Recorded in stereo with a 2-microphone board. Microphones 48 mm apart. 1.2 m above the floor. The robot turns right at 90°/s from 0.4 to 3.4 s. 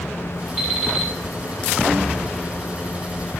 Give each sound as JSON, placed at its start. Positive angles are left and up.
{"t": 0.6, "sound": "an alarm clock", "azimuth_deg": -30, "distance_m": 4.0}